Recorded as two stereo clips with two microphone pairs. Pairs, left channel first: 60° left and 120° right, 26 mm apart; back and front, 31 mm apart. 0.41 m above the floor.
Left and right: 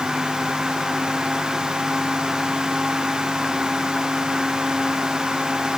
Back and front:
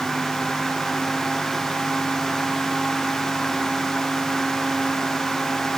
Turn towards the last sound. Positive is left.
No sound to turn to.